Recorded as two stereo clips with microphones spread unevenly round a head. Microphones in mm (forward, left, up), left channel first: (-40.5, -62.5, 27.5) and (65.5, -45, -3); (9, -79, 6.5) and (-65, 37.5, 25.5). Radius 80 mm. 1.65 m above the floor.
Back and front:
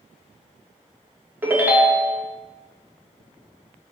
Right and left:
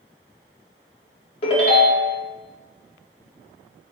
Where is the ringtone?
75° right, 0.5 m.